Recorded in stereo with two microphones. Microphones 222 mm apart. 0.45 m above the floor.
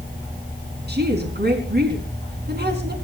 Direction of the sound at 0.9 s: 50° right (ahead or behind).